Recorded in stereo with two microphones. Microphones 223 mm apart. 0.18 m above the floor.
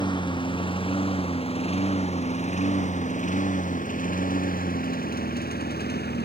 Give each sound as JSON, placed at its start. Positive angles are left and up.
{"t": 0.0, "sound": "a lawn mower", "side_deg": 20}